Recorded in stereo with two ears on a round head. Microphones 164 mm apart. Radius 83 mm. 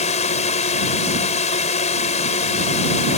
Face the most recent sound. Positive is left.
turn(degrees=40)  # may be behind; listen again after turning